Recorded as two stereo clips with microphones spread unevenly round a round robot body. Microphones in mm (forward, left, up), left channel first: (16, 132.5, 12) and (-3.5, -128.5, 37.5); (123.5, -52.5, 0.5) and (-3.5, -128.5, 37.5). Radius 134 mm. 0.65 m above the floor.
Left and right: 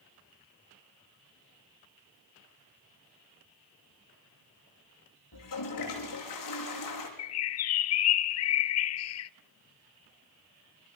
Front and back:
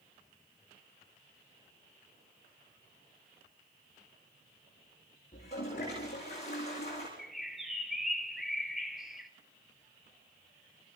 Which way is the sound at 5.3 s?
100° left.